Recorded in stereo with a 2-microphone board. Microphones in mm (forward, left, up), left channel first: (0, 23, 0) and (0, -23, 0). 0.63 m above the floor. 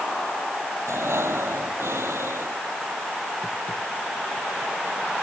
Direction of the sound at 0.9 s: 85° right.